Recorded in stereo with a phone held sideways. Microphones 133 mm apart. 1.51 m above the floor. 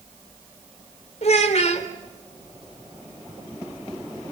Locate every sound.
1.2 s a child speaking: 55° left (ahead or behind), 3.5 m